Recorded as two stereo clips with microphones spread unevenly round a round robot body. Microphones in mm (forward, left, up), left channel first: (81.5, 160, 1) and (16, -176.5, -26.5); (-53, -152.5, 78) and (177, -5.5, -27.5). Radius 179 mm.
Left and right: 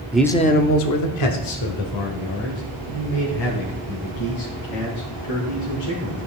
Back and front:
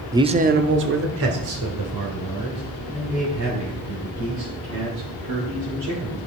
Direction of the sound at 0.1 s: 20° right.